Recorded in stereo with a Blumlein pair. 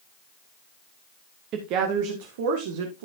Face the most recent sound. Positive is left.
turn(degrees=-55)